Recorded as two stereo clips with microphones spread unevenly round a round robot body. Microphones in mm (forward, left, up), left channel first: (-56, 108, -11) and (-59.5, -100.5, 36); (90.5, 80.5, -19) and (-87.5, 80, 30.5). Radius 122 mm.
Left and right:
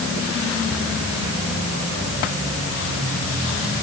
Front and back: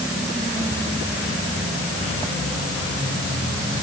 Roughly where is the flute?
I don't hear a flute.